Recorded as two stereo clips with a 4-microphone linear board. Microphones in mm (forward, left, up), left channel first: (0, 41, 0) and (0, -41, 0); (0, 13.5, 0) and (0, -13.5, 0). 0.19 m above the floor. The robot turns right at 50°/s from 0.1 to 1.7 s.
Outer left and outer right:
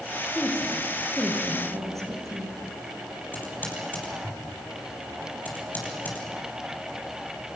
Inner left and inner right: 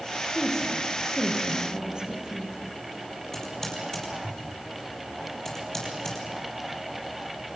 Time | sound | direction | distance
0.3 | a woman speaking | 150° left | 5.5 m
3.3 | typing on a keyboard | 20° left (ahead or behind) | 6 m